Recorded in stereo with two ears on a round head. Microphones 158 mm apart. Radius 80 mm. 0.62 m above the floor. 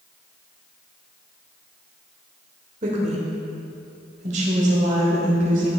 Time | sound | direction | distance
2.8 | a woman speaking | 40° right (ahead or behind) | 2.5 m